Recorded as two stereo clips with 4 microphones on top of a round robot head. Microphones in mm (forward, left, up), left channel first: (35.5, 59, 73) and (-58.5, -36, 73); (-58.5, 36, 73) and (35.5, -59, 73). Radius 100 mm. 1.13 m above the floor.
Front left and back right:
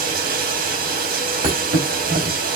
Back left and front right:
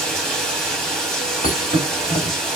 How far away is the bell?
I don't hear a bell.